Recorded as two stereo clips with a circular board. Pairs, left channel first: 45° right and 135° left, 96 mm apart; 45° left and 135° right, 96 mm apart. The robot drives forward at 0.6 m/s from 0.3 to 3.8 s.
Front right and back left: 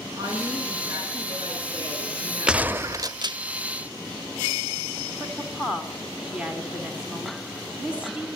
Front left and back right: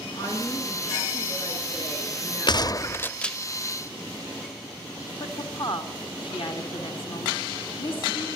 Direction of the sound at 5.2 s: 60° left.